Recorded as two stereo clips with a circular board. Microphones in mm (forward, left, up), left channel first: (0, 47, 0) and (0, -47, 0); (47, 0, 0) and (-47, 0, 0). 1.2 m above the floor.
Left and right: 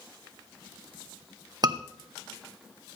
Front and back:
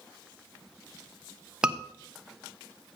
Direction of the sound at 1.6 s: 100° right.